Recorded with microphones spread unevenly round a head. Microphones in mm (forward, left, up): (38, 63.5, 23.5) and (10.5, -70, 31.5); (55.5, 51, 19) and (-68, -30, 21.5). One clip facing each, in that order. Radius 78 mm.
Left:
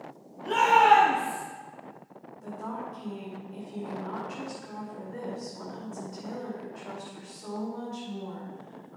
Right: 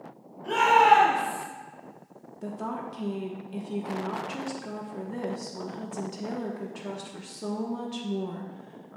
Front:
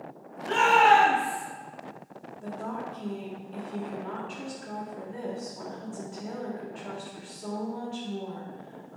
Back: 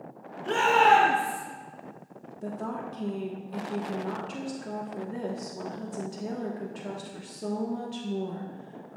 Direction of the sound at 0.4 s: 170° left.